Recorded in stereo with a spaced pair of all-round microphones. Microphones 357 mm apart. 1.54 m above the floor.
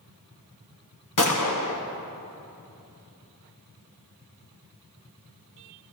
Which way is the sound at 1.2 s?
60° left (ahead or behind).